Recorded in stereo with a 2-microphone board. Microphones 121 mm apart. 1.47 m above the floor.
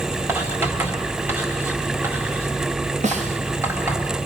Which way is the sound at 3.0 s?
70° right (ahead or behind).